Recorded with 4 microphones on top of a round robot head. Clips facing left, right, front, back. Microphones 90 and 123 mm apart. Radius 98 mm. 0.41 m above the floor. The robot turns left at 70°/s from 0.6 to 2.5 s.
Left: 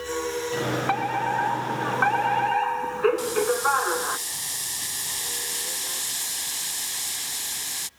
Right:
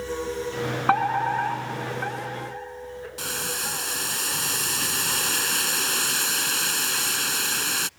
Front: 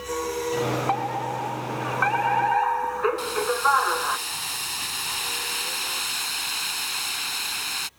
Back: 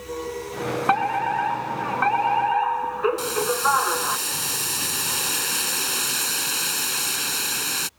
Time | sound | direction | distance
0.9 | a fire alarm | 145° right | ?
3.2 | boiling | 130° right | ?